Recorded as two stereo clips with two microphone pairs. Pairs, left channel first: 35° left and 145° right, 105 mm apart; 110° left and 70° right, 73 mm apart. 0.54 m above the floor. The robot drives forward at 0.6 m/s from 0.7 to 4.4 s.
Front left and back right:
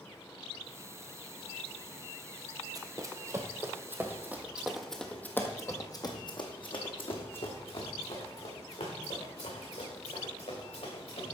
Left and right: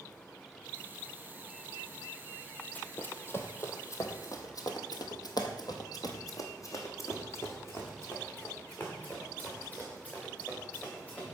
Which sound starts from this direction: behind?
Running footsteps, at 2.8 s.